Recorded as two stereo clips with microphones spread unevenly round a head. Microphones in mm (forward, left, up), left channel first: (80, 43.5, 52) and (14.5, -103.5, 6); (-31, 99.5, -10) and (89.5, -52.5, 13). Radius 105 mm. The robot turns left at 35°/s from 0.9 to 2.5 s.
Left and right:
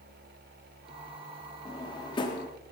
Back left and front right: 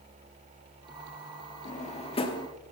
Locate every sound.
1.6 s a drawer: 90° left, 1.0 m; by 2.5 s 60° left, 1.0 m